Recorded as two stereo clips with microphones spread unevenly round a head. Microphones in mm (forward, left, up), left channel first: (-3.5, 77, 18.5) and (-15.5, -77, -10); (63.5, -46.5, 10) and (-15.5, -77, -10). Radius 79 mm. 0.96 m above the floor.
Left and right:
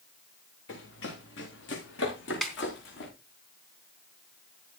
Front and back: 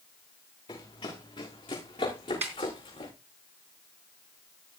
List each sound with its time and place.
0.7 s running footsteps: 75° left, 6.5 m; by 3.1 s 65° left, 7 m
2.4 s a snare drum: 170° left, 3.5 m